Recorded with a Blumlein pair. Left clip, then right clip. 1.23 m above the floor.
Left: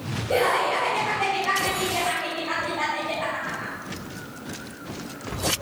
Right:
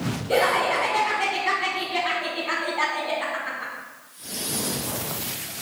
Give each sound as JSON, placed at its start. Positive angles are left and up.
{"t": 0.3, "sound": "laughter", "azimuth_deg": -15, "distance_m": 1.4}